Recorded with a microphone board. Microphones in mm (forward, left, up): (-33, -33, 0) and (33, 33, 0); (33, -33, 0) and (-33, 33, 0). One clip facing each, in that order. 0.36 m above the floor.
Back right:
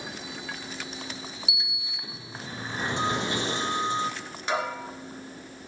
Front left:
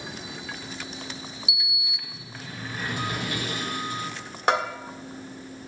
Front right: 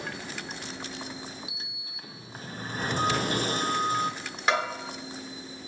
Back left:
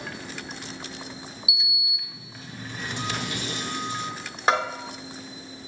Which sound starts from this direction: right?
A sliding door, at 1.5 s.